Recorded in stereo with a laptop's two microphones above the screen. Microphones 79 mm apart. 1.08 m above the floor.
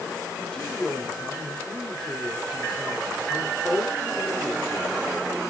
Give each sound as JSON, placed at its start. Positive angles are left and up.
{"t": 0.4, "sound": "a man speaking", "side_deg": 10, "distance_m": 2.5}